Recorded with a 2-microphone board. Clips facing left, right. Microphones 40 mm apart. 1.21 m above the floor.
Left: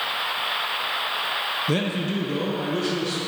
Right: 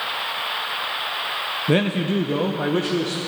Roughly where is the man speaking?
Right.